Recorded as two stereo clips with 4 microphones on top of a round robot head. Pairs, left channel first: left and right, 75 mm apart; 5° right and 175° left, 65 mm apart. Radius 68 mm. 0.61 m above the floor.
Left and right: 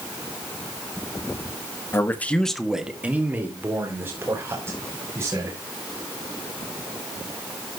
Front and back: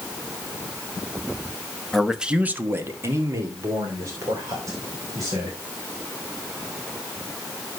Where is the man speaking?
80° left, 1.4 m; by 5.6 s 145° right, 5.5 m.